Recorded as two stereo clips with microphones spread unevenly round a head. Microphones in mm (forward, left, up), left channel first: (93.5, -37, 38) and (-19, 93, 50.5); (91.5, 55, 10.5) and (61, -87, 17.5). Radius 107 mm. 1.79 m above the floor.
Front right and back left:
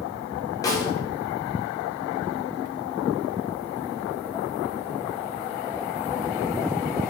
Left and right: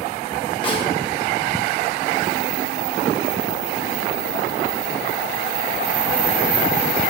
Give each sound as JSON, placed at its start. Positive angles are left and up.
{"t": 0.6, "sound": "a snare drum", "azimuth_deg": 20, "distance_m": 2.0}